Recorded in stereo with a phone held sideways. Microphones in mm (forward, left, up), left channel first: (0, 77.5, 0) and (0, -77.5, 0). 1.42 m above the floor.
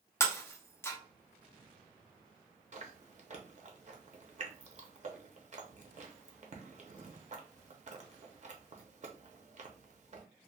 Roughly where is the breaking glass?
Centre.